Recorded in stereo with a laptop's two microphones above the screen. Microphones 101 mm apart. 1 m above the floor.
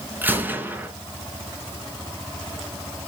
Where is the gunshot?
15° right (ahead or behind), 4 m.